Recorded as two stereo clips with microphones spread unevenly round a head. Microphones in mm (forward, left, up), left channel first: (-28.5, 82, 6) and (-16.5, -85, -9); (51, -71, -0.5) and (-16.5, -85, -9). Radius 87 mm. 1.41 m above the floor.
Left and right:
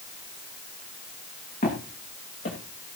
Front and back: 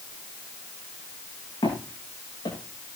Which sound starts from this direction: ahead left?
Footsteps, at 1.6 s.